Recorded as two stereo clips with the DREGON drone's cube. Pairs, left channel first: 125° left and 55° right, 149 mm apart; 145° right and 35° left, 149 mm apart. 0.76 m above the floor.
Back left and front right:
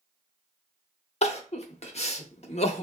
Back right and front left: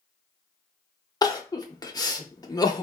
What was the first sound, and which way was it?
Crying, 155° left.